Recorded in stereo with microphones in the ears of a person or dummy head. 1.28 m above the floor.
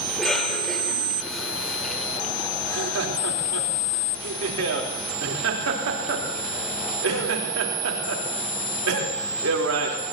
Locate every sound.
0.1 s a cough: centre (ahead or behind), 4 m
2.6 s laughter: 75° right (ahead or behind), 3.5 m